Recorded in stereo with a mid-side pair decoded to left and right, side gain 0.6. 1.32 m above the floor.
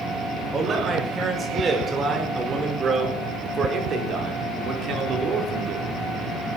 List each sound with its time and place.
0.5 s a man speaking: 25° right, 6.5 m; by 5.9 s 55° right, 4.5 m